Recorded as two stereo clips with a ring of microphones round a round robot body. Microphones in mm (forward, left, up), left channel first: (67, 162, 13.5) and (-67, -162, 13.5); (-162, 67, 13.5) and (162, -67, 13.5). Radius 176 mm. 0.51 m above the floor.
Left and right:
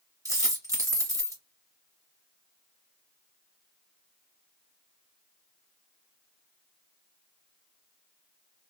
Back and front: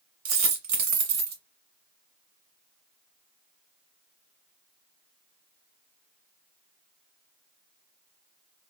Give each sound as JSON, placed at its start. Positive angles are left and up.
{"t": 0.2, "sound": "a dropped coin", "azimuth_deg": -30, "distance_m": 1.7}